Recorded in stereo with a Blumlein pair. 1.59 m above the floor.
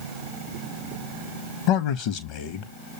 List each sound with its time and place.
1.7 s a man speaking: 45° left, 0.6 m